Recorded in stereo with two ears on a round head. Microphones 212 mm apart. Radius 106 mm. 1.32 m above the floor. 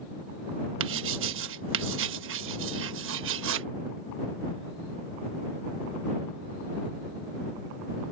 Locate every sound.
0.8 s writing: 55° right (ahead or behind)